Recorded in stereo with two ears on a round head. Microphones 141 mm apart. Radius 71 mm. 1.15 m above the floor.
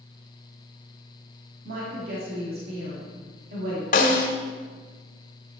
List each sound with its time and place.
1.6 s a woman speaking: 70° right (ahead or behind), 2.5 m
3.9 s a snare drum: 55° left (ahead or behind), 1.5 m